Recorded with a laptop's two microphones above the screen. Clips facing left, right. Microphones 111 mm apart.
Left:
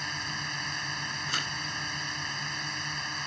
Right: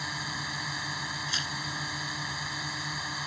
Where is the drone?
5° right (ahead or behind).